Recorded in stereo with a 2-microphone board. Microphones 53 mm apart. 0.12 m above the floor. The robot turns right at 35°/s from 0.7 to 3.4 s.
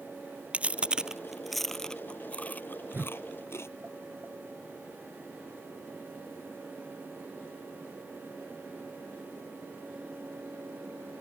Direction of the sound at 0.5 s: 25° right (ahead or behind).